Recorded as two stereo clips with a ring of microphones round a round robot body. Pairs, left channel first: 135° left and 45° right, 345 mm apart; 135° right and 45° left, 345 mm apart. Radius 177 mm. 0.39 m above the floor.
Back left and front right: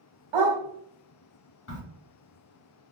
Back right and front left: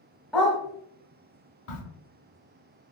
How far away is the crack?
About 1.5 m.